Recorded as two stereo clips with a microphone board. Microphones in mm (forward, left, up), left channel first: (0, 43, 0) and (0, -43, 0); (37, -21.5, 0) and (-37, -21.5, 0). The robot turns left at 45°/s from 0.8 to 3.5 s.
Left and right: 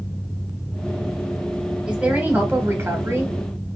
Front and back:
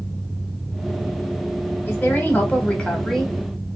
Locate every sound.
1.9 s a woman speaking: 20° right, 1.2 m; by 3.3 s 85° right, 1.2 m